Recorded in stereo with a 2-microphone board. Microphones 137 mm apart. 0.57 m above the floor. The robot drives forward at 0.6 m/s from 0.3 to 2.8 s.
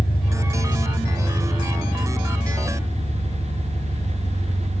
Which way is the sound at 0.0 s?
85° left.